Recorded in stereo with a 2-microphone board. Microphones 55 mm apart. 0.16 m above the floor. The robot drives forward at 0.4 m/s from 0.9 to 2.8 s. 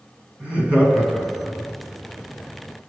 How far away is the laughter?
About 1.3 m.